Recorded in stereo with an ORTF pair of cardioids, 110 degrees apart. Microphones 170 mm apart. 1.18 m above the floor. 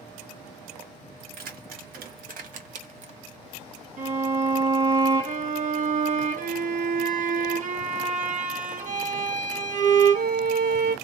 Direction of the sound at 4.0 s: 45° right.